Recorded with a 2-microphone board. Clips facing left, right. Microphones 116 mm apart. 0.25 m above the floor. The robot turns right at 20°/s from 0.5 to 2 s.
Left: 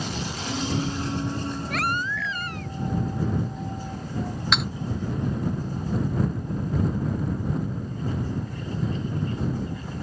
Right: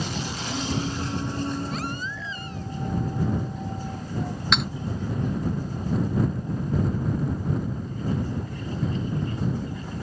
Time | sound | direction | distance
1.7 | a baby crying | 80° left | ?
4.5 | cutlery clinking | centre (ahead or behind) | ?